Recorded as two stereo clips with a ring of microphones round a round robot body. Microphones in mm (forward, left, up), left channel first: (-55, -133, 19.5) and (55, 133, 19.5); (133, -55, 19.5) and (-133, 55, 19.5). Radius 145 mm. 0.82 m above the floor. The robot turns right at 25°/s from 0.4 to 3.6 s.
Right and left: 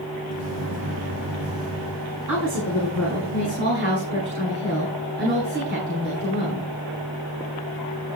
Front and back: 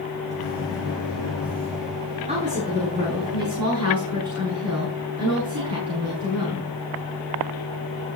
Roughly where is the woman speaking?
Left.